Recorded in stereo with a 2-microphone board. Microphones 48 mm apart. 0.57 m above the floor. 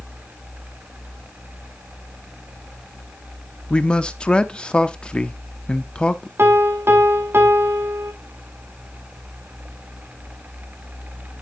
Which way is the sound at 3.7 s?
20° left (ahead or behind).